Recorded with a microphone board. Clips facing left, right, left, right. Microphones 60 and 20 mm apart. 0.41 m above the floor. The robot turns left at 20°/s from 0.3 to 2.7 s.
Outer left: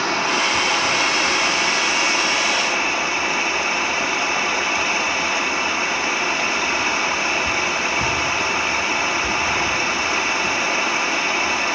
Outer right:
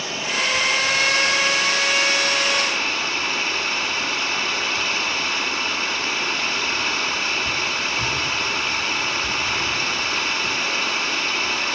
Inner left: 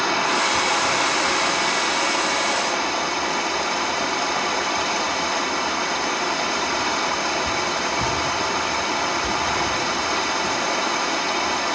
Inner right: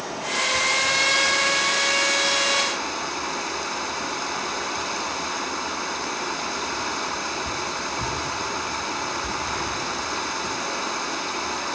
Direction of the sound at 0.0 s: 65° left.